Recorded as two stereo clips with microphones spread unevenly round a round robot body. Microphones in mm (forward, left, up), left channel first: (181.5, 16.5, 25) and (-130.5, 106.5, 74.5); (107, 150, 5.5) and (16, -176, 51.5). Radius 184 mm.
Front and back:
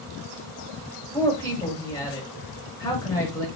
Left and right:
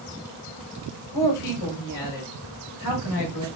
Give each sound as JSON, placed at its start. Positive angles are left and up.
{"t": 1.1, "sound": "a woman speaking", "azimuth_deg": 60, "distance_m": 2.0}